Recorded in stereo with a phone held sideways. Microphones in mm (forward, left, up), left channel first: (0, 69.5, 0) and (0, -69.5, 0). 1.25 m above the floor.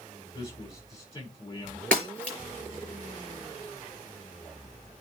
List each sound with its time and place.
0.3 s a man speaking: 25° left (ahead or behind), 5 m
1.9 s breaking glass: 10° left (ahead or behind), 5.5 m